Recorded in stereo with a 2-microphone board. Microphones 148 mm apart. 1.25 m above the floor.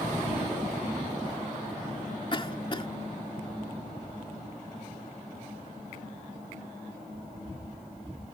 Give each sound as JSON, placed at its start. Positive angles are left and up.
{"t": 2.3, "sound": "a cough", "side_deg": 35}